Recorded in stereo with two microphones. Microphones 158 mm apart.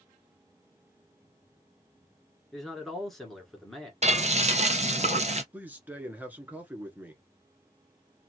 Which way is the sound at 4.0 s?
45° right (ahead or behind).